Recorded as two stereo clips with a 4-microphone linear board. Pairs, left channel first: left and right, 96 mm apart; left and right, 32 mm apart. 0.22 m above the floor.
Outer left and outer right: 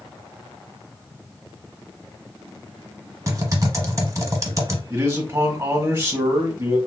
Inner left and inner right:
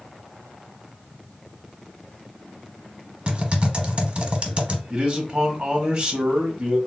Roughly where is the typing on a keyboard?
Right.